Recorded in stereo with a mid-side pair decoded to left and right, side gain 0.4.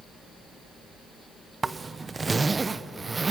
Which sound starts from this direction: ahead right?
A zipper, at 1.6 s.